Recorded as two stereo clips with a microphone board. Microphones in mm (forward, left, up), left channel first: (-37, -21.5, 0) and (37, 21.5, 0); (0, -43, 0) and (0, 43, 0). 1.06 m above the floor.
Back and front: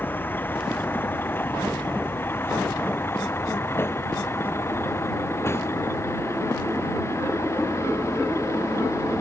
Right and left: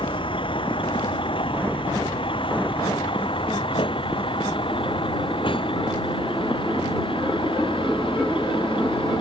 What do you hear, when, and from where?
0.0 s a vehicle: 80° right; by 9.2 s 95° right